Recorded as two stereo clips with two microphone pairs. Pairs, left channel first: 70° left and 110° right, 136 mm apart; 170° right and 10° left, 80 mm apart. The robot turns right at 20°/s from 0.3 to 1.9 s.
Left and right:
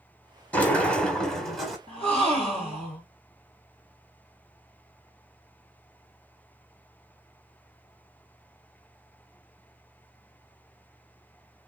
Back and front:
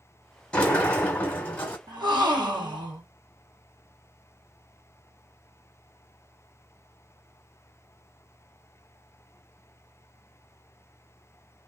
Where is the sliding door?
130° left, 1.3 m; by 1.8 s 155° left, 1.3 m.